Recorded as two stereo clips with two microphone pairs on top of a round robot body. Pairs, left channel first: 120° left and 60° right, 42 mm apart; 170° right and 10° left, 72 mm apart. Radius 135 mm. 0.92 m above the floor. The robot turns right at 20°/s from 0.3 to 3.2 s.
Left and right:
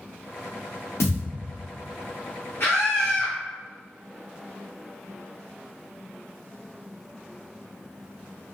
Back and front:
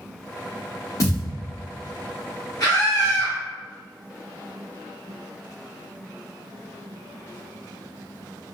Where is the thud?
145° left, 0.8 m; by 1.3 s 150° left, 0.8 m.